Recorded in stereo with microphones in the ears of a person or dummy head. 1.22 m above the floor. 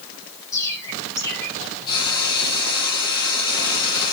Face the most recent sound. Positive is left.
turn(degrees=25)  # may be behind; listen again after turning